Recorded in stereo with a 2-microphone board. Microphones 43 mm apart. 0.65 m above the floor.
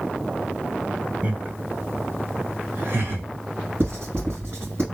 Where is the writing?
65° right (ahead or behind), 3.5 m.